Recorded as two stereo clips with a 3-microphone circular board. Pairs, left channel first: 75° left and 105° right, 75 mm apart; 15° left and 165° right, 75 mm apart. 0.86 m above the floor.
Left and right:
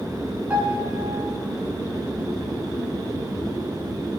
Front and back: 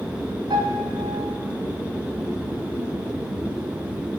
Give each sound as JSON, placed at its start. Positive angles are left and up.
{"t": 0.5, "sound": "a piano", "azimuth_deg": -175, "distance_m": 4.0}